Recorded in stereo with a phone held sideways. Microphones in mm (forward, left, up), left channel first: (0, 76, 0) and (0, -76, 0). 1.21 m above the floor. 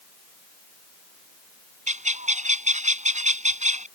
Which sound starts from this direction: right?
A bird, at 1.9 s.